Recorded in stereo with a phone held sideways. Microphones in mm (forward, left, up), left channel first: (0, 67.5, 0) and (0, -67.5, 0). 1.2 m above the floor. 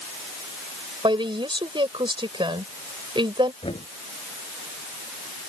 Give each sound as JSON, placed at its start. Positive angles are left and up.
{"t": 1.0, "sound": "a woman speaking", "side_deg": -35}
{"t": 3.6, "sound": "knocking", "side_deg": 45}